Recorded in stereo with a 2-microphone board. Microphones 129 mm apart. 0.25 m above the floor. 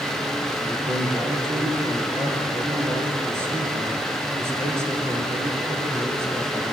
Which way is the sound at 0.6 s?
20° right (ahead or behind).